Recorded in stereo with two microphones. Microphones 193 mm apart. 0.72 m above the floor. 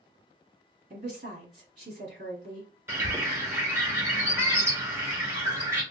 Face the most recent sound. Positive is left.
turn(degrees=-15)  # may be behind; listen again after turning